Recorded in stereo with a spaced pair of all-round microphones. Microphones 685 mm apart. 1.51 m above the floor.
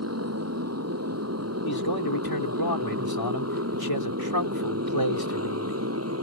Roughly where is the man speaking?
Left.